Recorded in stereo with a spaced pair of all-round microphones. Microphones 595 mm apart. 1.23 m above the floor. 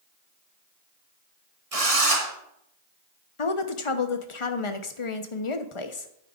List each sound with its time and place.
1.7 s a drill: 70° right (ahead or behind), 1.7 m
3.4 s a woman speaking: 55° left (ahead or behind), 0.8 m